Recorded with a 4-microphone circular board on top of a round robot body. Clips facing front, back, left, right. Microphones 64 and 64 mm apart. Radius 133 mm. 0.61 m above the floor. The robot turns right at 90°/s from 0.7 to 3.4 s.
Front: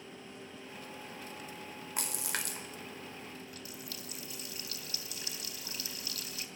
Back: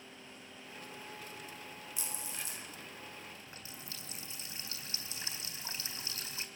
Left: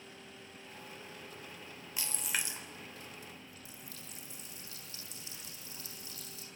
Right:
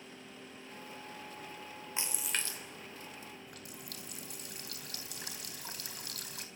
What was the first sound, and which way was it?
A splash, 25° right.